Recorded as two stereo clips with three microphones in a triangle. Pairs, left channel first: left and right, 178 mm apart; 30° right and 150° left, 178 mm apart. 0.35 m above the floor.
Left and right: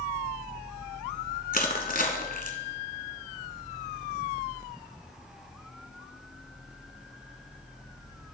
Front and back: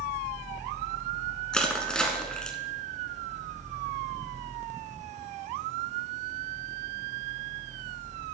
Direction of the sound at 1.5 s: 55° left.